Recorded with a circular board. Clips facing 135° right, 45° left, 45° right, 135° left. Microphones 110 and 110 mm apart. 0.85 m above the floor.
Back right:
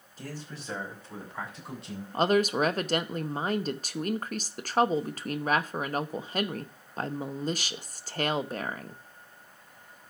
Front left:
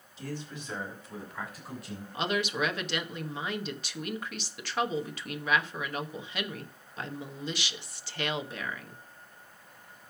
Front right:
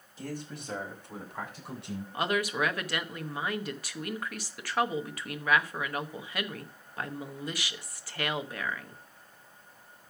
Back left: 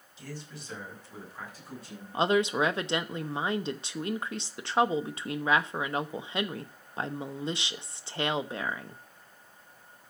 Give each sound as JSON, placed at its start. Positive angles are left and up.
{"t": 0.2, "sound": "a man speaking", "azimuth_deg": -90, "distance_m": 4.5}
{"t": 2.1, "sound": "a woman speaking", "azimuth_deg": -165, "distance_m": 1.0}